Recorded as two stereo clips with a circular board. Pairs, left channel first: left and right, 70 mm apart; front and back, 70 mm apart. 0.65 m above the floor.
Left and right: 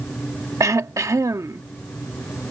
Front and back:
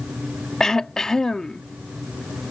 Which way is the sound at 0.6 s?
80° right.